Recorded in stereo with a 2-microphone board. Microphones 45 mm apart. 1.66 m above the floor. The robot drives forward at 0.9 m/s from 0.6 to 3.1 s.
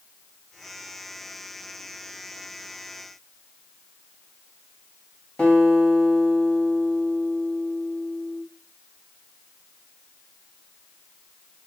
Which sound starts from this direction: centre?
A guitar, at 5.4 s.